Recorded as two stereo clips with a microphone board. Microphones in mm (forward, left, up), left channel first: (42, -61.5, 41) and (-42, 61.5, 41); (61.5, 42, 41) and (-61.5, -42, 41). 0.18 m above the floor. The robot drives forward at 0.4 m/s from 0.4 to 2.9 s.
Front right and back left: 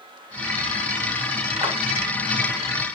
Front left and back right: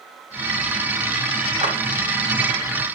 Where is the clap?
165° left, 3 m.